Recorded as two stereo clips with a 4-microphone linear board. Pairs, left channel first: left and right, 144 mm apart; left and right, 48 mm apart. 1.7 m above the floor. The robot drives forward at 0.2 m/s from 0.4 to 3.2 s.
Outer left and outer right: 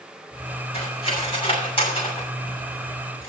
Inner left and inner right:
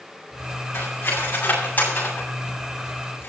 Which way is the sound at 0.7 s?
40° left (ahead or behind).